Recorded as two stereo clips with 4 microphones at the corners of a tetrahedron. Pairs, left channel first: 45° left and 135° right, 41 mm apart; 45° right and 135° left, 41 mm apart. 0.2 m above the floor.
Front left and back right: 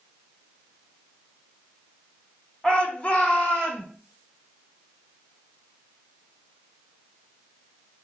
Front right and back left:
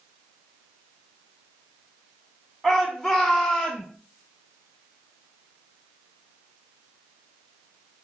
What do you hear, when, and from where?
2.6 s a shout: 60° left, 1.2 m; by 3.9 s 25° left, 1.4 m